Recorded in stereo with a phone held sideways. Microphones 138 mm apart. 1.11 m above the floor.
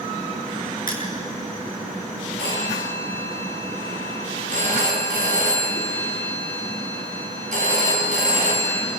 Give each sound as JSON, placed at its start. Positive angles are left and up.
{"t": 0.9, "sound": "crushing", "side_deg": 75, "distance_m": 7.5}
{"t": 2.4, "sound": "a phone ringing", "side_deg": -65, "distance_m": 7.5}